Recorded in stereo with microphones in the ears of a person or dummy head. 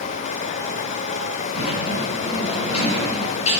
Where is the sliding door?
35° left (ahead or behind), 7.5 m.